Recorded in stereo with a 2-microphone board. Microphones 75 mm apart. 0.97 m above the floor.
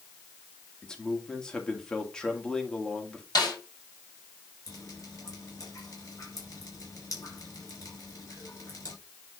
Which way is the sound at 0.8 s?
10° left (ahead or behind).